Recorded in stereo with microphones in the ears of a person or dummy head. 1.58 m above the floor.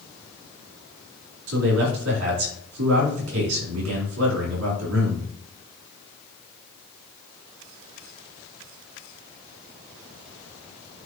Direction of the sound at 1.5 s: 85° right.